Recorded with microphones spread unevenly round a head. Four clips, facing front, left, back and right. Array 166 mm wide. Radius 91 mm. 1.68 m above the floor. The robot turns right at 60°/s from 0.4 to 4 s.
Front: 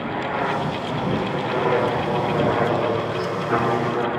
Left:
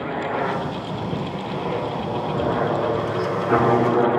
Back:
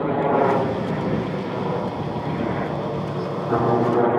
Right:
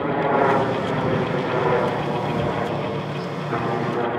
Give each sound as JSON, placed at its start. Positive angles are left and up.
{"t": 0.0, "sound": "a helicopter", "azimuth_deg": -150}